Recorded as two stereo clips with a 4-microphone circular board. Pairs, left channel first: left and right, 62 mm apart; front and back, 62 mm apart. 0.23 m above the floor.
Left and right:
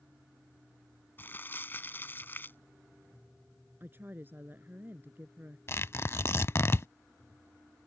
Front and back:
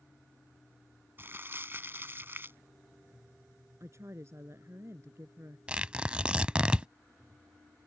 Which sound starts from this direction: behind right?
A woman speaking, at 3.8 s.